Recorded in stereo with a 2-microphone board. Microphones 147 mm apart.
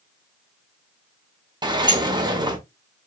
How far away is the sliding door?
About 0.6 m.